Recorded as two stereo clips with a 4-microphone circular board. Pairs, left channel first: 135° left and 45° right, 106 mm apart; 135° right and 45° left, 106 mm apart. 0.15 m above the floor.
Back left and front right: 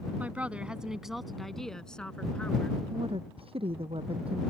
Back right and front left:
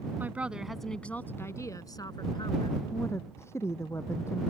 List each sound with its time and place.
0.2 s a woman speaking: 5° left; by 2.8 s 150° right
2.9 s a woman speaking: 70° right